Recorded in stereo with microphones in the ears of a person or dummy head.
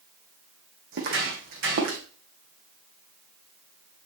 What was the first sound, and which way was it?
Footsteps, 55° right (ahead or behind).